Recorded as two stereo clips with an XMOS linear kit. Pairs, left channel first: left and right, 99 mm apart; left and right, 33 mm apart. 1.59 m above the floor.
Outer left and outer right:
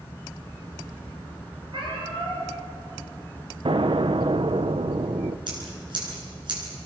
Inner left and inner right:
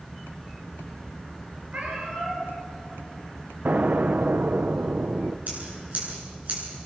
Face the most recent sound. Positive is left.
turn(degrees=-50)  # may be behind; listen again after turning